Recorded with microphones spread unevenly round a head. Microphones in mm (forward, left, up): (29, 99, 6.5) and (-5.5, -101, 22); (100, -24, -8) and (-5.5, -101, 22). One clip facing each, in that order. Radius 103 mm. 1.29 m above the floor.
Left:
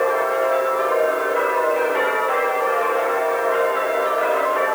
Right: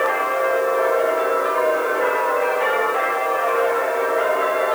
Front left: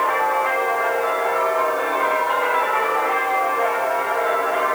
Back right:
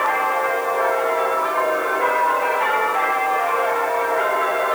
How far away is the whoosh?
No whoosh in this recording.